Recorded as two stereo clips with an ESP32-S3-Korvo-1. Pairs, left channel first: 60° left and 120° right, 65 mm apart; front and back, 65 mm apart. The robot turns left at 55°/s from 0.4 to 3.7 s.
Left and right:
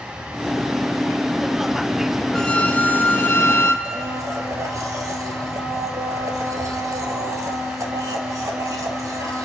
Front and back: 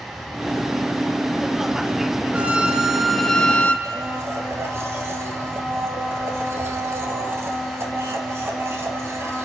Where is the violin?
130° left, 1.1 m; by 3.8 s 55° left, 1.1 m.